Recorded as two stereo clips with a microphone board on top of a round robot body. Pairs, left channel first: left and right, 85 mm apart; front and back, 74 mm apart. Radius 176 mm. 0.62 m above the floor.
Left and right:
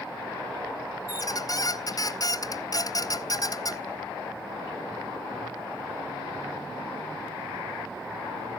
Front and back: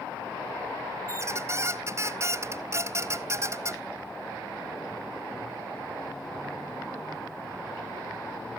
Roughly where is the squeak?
Behind left.